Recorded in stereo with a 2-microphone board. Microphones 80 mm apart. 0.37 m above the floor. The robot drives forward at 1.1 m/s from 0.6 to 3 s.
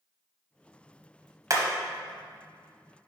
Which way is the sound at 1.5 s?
45° right (ahead or behind).